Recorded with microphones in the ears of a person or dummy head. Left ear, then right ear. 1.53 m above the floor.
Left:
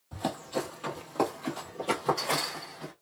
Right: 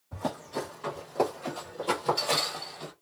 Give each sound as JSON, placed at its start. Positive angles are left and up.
{"t": 0.1, "sound": "running footsteps", "side_deg": 30, "distance_m": 1.7}